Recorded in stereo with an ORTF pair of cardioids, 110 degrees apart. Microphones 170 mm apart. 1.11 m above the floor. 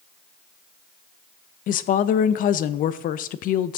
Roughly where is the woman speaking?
Ahead left.